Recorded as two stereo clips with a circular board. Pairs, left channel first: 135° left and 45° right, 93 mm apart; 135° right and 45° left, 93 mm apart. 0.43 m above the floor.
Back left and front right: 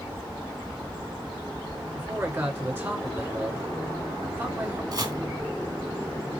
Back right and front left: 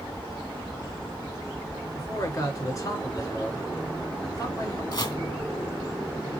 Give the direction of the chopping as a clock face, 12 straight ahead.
3 o'clock.